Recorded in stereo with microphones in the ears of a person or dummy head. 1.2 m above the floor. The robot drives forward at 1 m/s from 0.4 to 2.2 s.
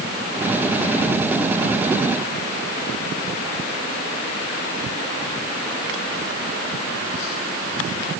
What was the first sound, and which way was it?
Only background noise.